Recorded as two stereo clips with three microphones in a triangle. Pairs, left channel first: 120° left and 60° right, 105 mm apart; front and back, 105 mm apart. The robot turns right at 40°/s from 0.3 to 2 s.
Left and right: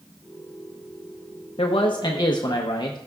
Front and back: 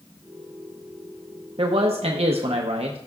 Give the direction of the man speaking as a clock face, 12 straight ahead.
7 o'clock.